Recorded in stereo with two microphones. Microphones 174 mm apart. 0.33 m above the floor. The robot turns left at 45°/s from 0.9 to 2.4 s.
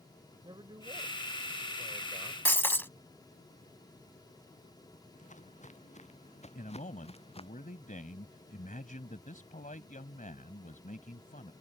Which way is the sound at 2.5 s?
10° left (ahead or behind).